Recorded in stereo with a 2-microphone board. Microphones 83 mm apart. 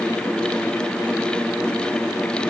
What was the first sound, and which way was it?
Only background noise.